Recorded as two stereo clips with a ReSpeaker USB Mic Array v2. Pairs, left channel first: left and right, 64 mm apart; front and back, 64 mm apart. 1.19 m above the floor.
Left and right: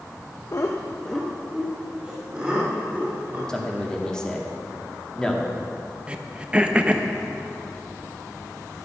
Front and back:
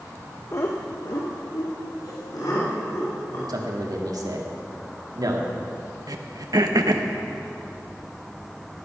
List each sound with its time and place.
0.5 s laughter: 50° left, 0.9 m; by 3.4 s 25° right, 4.5 m
3.5 s a man speaking: 170° left, 2 m
6.1 s throat clearing: 165° right, 0.9 m